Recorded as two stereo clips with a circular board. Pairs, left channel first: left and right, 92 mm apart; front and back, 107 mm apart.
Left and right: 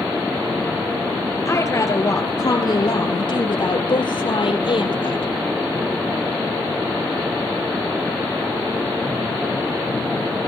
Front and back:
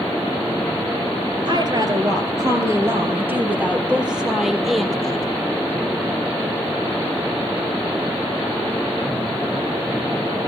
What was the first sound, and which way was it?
A woman speaking, 145° left.